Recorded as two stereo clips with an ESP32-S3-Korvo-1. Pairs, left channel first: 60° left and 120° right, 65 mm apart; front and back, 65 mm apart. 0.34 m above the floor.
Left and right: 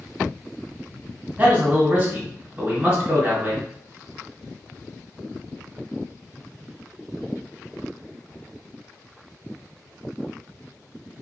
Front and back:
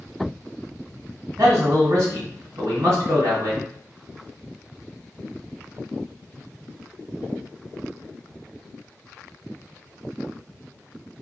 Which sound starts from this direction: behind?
A man speaking, at 1.4 s.